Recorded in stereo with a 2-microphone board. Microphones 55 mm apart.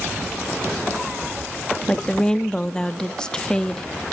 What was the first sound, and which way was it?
A woman speaking, 15° left (ahead or behind).